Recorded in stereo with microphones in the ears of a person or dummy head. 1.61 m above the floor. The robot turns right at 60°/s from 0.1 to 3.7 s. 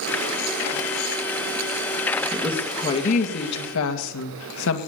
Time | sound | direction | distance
2.3 | a woman speaking | 5° right | 2 m